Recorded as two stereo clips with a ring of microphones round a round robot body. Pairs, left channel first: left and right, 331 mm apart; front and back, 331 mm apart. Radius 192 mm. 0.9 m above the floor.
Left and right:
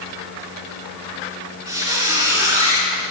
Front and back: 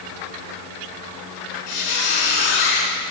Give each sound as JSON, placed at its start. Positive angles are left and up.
{"t": 1.7, "sound": "a squeak", "azimuth_deg": -10, "distance_m": 3.0}